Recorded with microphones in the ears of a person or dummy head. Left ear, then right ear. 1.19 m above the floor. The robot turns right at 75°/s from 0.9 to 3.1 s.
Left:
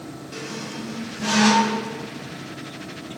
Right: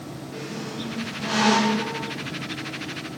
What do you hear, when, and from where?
0.3 s a squeak: 70° left (ahead or behind), 4.5 m; by 1.9 s 40° left (ahead or behind), 4.5 m